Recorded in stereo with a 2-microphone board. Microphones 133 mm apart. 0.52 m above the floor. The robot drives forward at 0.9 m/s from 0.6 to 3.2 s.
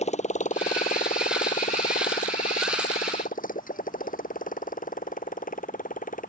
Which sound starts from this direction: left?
A motorcycle, at 0.0 s.